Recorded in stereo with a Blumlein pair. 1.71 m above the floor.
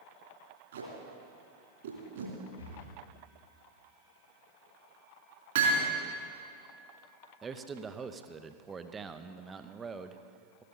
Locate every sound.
0.7 s tape being pulled: 65° right, 3 m
2.6 s breathing: 70° left, 3 m
5.5 s hammering: 60° right, 2.5 m
7.4 s a man speaking: 15° right, 0.7 m